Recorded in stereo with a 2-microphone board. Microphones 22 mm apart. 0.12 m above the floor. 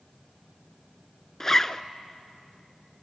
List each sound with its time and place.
1.4 s a zipper: 20° left (ahead or behind), 0.5 m